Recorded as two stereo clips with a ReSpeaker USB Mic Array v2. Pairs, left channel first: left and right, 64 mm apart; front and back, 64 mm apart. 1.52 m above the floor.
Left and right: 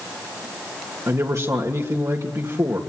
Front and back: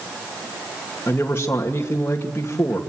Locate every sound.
1.1 s a man speaking: 50° right, 2.5 m